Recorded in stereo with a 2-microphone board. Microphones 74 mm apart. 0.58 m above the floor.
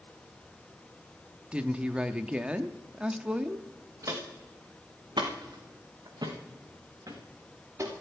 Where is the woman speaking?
15° right (ahead or behind), 0.6 m.